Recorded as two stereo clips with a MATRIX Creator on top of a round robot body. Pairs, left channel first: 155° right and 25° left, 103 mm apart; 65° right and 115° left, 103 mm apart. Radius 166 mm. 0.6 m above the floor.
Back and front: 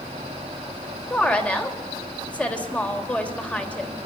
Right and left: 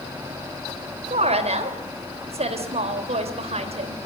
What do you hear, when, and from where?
1.1 s a woman speaking: 125° left, 3 m